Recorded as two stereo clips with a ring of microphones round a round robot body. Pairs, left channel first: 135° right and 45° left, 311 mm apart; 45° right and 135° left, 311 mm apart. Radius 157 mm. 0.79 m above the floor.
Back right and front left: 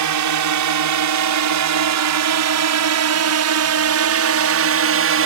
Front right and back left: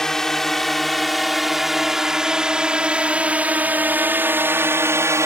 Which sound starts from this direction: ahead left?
A drone, at 0.0 s.